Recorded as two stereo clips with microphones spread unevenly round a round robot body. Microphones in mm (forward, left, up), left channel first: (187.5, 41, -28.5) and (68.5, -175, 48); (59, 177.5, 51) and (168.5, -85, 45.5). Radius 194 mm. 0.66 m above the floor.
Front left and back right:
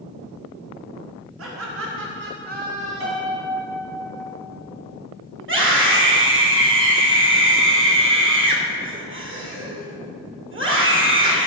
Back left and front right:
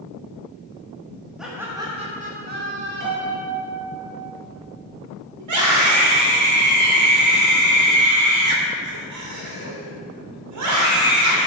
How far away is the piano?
About 4 m.